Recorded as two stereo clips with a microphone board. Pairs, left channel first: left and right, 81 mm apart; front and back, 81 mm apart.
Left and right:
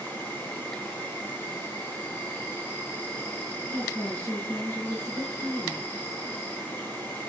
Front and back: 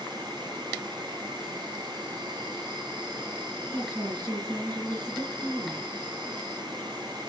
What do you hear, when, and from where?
0.0 s an insect: 150° left, 9 m
3.7 s a woman speaking: 140° left, 9 m